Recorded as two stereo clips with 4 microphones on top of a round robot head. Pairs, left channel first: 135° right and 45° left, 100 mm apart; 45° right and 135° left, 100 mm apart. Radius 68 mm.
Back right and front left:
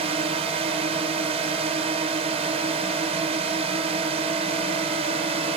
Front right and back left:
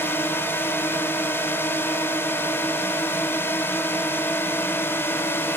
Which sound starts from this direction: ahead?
A drone, at 0.0 s.